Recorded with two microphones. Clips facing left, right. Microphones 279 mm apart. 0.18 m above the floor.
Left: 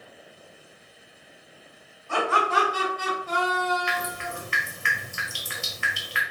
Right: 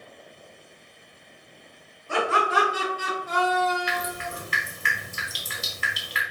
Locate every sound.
2.1 s laughter: 30° right (ahead or behind), 1.6 m; by 4.3 s 30° left (ahead or behind), 1.6 m
3.9 s dripping: 40° right (ahead or behind), 0.7 m